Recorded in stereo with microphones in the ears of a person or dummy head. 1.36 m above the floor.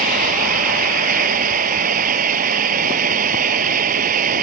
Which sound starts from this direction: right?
A fan, at 0.0 s.